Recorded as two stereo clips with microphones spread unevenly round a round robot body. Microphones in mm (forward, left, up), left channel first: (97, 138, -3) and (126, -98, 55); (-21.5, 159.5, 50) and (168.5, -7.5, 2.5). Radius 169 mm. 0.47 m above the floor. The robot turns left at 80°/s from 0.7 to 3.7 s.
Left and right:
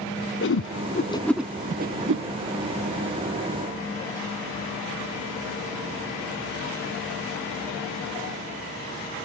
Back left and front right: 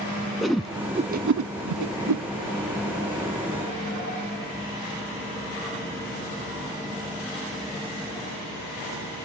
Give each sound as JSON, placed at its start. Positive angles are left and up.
{"t": 0.4, "sound": "a whoosh", "azimuth_deg": 55, "distance_m": 0.7}